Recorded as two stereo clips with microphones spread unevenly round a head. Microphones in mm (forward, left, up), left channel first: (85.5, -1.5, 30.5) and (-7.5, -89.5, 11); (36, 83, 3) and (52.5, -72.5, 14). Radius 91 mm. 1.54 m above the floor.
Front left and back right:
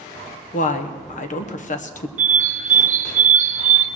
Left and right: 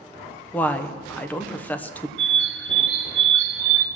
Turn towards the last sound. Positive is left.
turn(degrees=-110)